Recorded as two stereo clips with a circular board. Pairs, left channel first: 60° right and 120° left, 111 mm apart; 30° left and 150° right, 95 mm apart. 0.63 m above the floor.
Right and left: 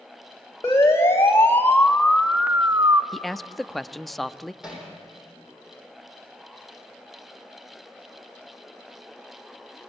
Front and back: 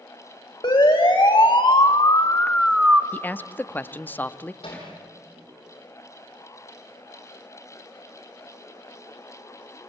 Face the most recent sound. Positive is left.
turn(degrees=40)